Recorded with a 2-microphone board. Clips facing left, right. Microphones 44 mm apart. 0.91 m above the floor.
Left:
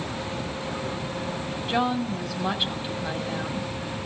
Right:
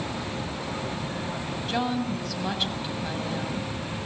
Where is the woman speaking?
15° left (ahead or behind), 6 m.